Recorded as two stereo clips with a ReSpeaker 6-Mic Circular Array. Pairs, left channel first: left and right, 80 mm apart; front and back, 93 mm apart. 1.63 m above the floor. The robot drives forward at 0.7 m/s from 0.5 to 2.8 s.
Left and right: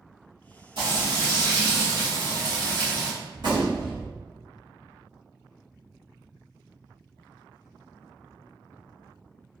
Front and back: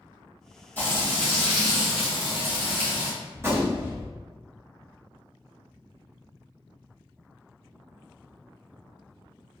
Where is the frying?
70° right, 1.9 m; by 3.1 s 115° right, 2.0 m.